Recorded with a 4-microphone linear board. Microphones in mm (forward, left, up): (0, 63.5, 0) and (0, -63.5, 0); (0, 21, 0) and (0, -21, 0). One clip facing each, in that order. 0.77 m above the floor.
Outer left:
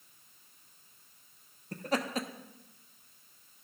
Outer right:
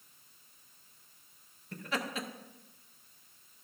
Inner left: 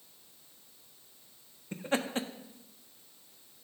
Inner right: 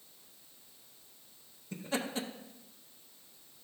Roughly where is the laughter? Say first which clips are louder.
Outer left 4 dB, inner left 4 dB; left.